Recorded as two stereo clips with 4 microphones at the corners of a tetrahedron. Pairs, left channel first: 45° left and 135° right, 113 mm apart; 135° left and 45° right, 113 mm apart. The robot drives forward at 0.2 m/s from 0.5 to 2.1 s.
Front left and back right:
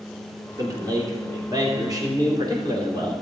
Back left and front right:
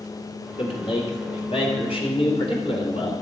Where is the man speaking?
170° left, 2.5 m.